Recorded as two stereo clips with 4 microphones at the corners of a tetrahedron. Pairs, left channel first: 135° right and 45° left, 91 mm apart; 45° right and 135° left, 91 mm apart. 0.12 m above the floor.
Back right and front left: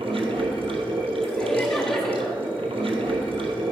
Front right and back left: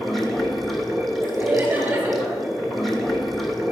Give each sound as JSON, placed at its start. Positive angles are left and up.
{"t": 0.0, "sound": "running water", "azimuth_deg": 45, "distance_m": 0.9}
{"t": 1.2, "sound": "laughter", "azimuth_deg": 145, "distance_m": 1.1}